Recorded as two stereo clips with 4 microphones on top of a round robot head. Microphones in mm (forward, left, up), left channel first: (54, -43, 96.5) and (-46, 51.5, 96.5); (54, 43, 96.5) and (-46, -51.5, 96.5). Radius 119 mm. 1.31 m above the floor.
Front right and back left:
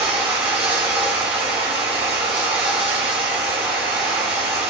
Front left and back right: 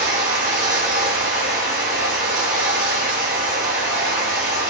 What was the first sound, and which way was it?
Running water, 150° right.